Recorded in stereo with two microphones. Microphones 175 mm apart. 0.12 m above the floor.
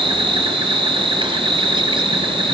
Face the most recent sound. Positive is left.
turn(degrees=-30)  # may be behind; listen again after turning